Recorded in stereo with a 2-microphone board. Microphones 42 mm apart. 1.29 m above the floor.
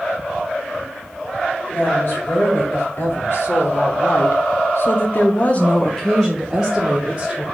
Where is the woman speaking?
55° left (ahead or behind), 2 m; by 7.4 s 15° right (ahead or behind), 1.3 m.